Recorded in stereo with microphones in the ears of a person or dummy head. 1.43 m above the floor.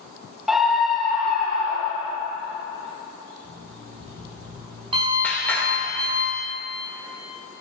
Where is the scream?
Centre (ahead or behind), 0.8 m; by 2.1 s 5° left (ahead or behind), 3 m.